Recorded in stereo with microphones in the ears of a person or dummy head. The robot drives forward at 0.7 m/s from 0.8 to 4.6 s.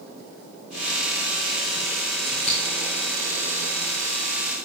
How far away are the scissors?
About 1.1 m.